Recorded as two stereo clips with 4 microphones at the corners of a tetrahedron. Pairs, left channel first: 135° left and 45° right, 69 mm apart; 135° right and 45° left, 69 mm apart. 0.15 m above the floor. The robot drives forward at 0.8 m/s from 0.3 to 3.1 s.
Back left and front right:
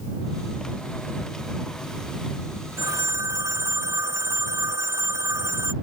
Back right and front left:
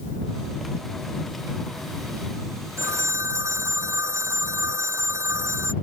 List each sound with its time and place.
2.8 s a phone ringing: straight ahead